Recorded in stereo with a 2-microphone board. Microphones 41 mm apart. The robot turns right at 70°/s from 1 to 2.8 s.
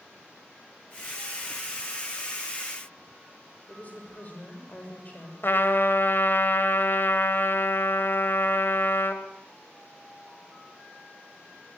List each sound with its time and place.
3.7 s a woman speaking: 35° left (ahead or behind), 6.5 m
5.4 s a trumpet: 55° left (ahead or behind), 2 m